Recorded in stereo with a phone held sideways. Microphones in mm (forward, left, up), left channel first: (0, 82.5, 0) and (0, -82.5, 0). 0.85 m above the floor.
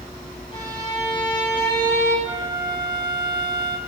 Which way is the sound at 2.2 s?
30° right (ahead or behind).